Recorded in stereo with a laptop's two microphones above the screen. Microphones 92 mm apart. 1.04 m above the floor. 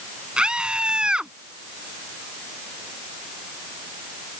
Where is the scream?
10° right (ahead or behind).